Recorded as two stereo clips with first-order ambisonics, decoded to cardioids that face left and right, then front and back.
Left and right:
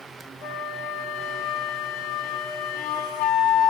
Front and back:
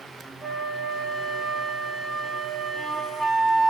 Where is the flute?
85° left, 1.1 m.